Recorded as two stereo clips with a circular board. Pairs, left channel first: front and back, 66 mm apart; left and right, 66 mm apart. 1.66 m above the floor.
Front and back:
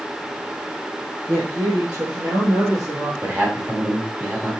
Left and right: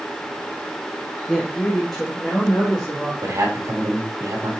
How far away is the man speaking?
About 2.5 m.